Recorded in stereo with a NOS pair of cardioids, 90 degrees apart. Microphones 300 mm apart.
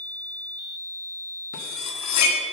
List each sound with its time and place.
1.5 s cutlery clinking: 65° left, 1.6 m